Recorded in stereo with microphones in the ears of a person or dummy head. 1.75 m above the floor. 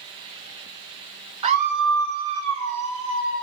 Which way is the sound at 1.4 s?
35° right (ahead or behind).